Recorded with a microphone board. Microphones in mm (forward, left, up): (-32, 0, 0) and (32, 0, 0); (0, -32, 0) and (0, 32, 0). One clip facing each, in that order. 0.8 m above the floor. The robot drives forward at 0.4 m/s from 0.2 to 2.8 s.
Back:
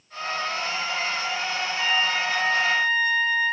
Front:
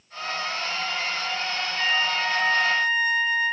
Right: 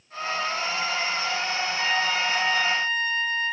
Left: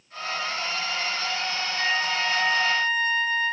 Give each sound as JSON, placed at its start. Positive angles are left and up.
{"t": 1.8, "sound": "a trumpet", "azimuth_deg": 45, "distance_m": 1.2}